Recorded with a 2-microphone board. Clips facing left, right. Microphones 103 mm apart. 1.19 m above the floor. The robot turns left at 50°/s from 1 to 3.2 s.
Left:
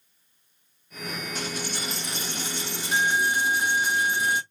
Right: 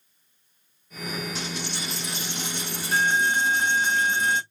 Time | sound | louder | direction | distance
1.4 | a dropped coin | left 1 dB | 100° left | 1.7 m